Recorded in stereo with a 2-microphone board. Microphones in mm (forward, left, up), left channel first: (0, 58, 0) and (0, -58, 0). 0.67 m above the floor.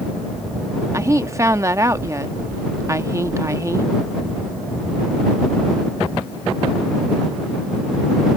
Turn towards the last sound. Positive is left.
turn(degrees=-25)  # may be behind; listen again after turning